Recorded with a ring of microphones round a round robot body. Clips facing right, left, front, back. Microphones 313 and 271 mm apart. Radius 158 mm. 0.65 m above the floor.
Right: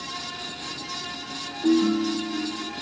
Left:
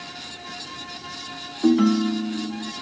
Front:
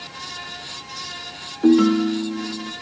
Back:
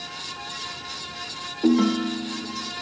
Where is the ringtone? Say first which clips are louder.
Left 2 dB, front 5 dB; 75° left, 1.2 m.